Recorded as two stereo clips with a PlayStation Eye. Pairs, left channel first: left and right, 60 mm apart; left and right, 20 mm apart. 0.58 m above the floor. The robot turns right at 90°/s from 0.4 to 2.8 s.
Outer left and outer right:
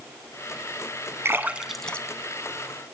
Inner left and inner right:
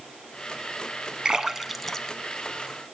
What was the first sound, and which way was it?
A splash, 45° right (ahead or behind).